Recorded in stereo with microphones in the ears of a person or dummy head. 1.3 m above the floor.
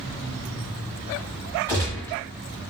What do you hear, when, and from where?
1.7 s a gunshot: 20° left (ahead or behind), 1.4 m